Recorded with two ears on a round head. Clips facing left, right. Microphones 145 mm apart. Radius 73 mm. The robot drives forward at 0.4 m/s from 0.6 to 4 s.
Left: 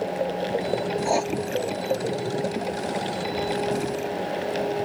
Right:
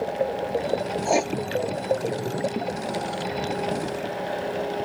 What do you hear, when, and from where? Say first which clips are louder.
1.1 s writing: right 2 dB; 20° right (ahead or behind)